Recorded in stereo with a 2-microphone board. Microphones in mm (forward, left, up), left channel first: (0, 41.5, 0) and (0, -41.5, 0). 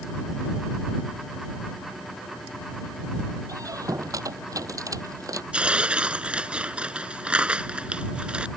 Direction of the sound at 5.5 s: 15° right (ahead or behind).